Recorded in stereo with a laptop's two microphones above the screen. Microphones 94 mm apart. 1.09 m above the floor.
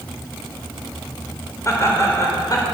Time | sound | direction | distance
1.6 | laughter | 30° left (ahead or behind) | 4 m